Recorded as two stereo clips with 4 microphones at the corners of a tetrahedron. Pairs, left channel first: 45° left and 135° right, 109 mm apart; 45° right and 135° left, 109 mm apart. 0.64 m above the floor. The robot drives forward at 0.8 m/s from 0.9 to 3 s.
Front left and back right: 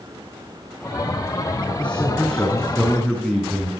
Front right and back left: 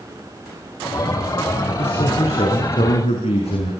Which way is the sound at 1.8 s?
35° right.